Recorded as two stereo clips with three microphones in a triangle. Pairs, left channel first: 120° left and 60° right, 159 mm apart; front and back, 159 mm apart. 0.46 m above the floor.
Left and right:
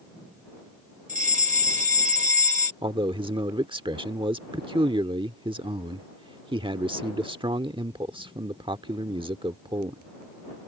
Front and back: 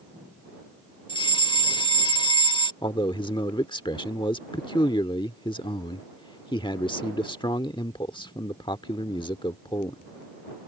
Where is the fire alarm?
50° right.